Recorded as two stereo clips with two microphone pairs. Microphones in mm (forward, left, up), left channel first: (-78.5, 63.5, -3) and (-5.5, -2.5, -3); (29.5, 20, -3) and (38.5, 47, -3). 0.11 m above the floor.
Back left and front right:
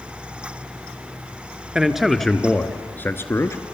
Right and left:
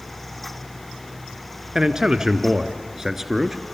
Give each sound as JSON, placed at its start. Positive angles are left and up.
{"t": 1.8, "sound": "a man speaking", "azimuth_deg": 35, "distance_m": 1.2}